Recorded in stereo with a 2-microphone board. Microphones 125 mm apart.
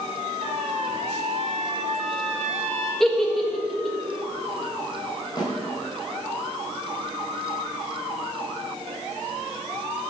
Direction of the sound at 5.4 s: 35° left (ahead or behind).